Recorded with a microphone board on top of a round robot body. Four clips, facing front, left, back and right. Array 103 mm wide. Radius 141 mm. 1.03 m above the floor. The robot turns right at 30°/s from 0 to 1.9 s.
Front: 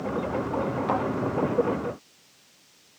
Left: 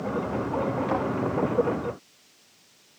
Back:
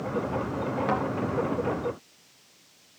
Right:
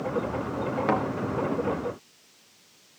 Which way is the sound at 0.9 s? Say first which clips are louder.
Right 5 dB, front 1 dB; 105° right.